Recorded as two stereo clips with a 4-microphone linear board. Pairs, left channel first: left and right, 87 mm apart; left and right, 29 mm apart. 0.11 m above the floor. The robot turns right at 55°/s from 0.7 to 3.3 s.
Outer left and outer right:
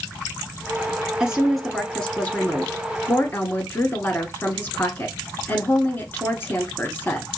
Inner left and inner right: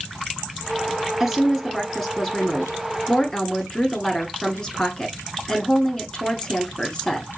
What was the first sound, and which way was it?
A woman speaking, 10° right (ahead or behind).